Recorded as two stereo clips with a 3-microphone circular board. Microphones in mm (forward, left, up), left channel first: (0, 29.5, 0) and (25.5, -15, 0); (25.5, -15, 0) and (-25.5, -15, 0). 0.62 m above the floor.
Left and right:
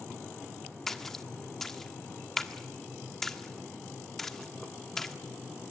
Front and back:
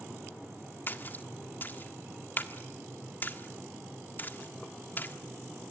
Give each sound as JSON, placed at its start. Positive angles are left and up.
{"t": 0.9, "sound": "a splash", "azimuth_deg": 40, "distance_m": 1.5}